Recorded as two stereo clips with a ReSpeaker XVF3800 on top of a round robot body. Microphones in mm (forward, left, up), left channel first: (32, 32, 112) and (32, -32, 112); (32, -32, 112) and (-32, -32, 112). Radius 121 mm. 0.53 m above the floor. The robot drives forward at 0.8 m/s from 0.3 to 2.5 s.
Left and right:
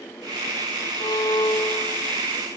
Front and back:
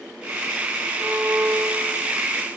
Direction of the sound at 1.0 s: 105° left.